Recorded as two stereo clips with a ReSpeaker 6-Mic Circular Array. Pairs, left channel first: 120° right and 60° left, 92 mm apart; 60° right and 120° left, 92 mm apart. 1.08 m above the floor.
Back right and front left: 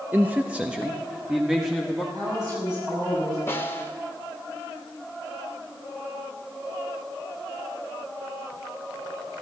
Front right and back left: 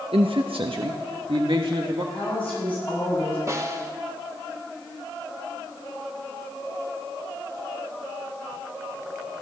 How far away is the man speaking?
About 0.6 m.